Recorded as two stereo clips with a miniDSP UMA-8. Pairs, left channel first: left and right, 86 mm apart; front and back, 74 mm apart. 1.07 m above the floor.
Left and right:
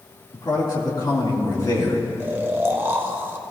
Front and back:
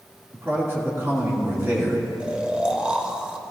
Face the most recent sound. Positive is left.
turn(degrees=-120)